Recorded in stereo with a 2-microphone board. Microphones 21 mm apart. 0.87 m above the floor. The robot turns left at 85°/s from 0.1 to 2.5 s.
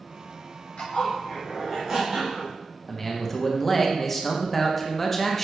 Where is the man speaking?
10° left (ahead or behind), 0.6 m.